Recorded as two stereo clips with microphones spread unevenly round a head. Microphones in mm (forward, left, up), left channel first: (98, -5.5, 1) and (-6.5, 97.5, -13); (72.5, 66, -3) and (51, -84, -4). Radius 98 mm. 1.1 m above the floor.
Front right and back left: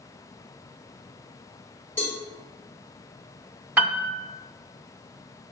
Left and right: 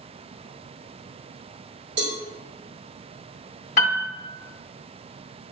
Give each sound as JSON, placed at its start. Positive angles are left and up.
{"t": 2.0, "sound": "a cowbell", "azimuth_deg": -120, "distance_m": 1.5}
{"t": 3.8, "sound": "a piano", "azimuth_deg": 65, "distance_m": 0.7}